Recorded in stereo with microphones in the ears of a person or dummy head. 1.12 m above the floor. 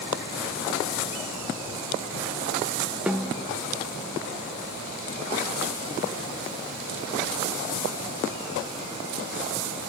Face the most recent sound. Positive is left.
turn(degrees=-10)  # may be behind; listen again after turning